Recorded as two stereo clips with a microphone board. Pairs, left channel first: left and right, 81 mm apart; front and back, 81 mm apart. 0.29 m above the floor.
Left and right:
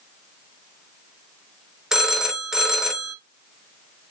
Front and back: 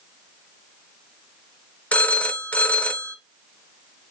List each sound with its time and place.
1.9 s a phone ringing: 25° right, 0.6 m